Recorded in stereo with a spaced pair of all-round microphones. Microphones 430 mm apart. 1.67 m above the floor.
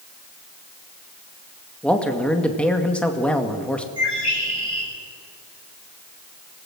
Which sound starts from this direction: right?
A bird, at 4.0 s.